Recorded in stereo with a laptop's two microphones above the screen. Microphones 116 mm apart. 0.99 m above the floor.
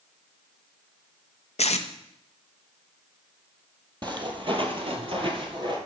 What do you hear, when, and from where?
1.6 s tape being pulled: 70° left (ahead or behind), 0.6 m
4.0 s footsteps: 40° right (ahead or behind), 1.7 m; by 5.8 s 45° right (ahead or behind), 1.8 m